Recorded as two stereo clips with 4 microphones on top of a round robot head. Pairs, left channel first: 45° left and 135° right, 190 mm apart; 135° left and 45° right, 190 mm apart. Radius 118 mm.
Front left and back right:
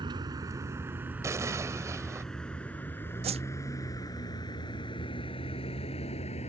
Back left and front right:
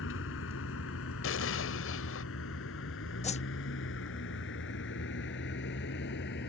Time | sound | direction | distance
0.0 | a vehicle | 155° left | ?
1.2 | an explosion | 150° left | ?
3.2 | a whoosh | 175° left | ?